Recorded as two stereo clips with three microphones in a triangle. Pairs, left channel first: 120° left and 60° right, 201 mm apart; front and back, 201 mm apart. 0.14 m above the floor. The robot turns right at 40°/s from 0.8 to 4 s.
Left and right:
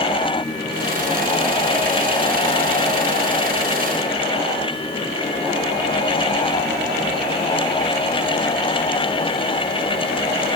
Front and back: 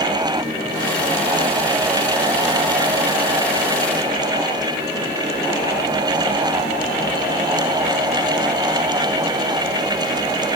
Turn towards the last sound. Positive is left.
No sound to turn to.